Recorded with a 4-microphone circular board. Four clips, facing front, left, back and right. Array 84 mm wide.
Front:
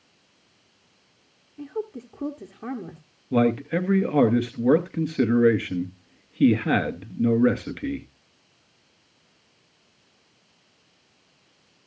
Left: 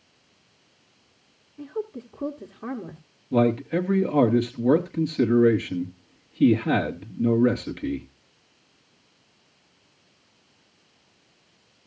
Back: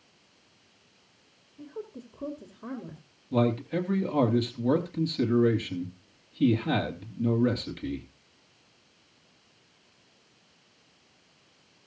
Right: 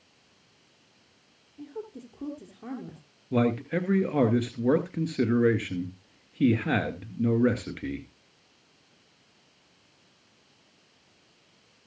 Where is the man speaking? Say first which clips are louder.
Left 4 dB, front 5 dB; 10° right, 2 m.